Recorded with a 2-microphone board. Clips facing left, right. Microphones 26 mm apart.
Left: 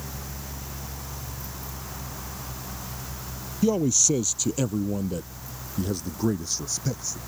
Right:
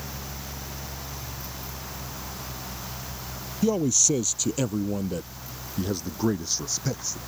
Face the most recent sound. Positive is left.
turn(degrees=-25)  # may be behind; listen again after turning